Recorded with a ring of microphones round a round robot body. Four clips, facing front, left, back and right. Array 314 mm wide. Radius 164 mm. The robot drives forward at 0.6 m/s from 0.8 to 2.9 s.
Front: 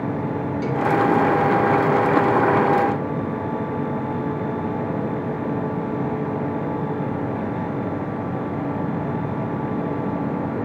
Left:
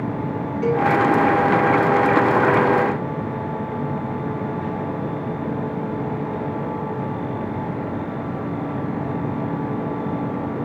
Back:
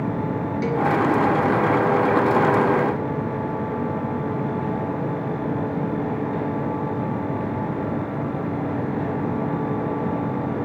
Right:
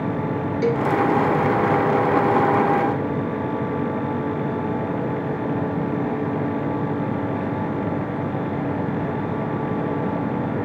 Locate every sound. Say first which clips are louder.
0.6 s a cowbell: left 2 dB, back 1 dB; 95° right, 3 m